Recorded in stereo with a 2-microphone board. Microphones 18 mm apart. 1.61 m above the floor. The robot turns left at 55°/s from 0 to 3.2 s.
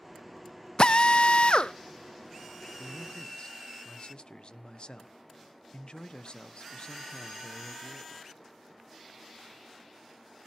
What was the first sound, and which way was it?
A drill, 120° left.